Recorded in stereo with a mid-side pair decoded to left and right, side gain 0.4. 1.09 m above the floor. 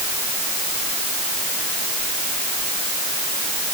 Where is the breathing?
I don't hear breathing.